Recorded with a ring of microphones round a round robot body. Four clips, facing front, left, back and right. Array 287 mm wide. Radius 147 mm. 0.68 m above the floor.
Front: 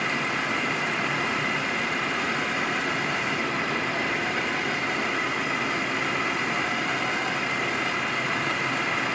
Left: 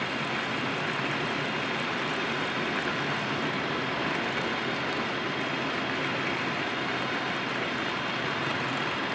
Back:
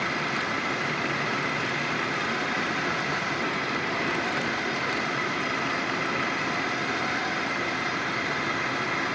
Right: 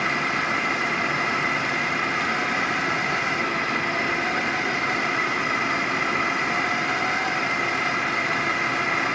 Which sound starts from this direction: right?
A drone, at 0.0 s.